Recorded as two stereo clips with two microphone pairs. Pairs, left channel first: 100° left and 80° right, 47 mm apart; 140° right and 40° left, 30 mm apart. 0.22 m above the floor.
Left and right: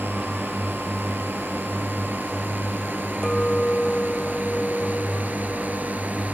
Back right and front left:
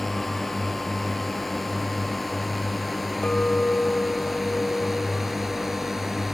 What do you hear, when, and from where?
0.0 s a drone: 55° right; by 6.3 s 30° right
3.2 s a clink: straight behind